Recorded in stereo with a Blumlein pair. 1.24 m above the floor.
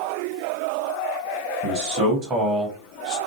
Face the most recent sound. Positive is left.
turn(degrees=35)